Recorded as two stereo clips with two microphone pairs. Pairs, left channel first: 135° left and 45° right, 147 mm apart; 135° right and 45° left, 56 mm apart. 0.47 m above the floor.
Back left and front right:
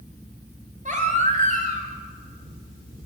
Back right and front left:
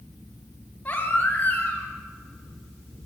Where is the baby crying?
75° right, 2 m.